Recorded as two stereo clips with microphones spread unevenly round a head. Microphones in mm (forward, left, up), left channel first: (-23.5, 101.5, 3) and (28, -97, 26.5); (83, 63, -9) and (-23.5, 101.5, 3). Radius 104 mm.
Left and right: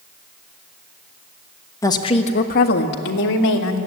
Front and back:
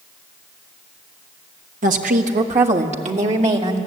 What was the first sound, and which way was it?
A woman speaking, straight behind.